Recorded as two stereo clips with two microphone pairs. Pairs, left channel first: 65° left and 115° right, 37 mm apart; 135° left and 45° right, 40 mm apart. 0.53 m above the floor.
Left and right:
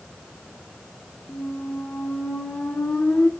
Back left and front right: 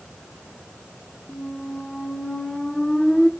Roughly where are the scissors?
No scissors in this recording.